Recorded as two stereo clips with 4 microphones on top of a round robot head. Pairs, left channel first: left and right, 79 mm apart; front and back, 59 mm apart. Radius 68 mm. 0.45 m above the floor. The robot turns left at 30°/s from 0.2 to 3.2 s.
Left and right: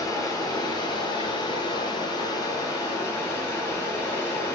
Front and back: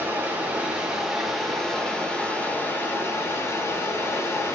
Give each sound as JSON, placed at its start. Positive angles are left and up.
{"t": 0.0, "sound": "running water", "azimuth_deg": 125, "distance_m": 0.9}